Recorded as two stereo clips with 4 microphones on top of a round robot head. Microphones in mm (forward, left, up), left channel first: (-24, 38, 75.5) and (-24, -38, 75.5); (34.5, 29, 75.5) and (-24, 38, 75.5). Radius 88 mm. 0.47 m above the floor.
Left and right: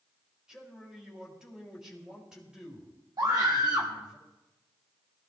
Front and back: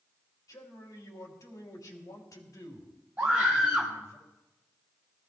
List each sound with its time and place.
0.5 s a man speaking: 10° right, 3.5 m
3.2 s a scream: 120° right, 3.5 m